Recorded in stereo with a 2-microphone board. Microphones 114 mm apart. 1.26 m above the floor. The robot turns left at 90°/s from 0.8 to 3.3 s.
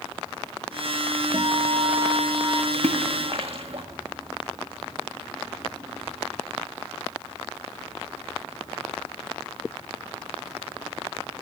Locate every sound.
1.3 s a guitar: 50° right, 1.0 m; by 2.6 s 170° right, 1.0 m
2.7 s a splash: 70° right (ahead or behind), 1.6 m; by 3.8 s 55° right (ahead or behind), 1.6 m